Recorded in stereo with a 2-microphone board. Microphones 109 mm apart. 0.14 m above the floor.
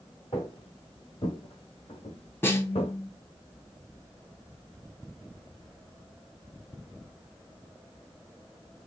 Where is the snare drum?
25° left (ahead or behind), 1.1 m.